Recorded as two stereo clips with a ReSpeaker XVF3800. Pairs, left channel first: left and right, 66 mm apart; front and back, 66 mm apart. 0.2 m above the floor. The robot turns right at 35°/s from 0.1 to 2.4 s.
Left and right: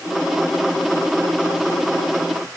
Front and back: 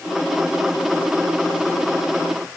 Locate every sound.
Only background noise.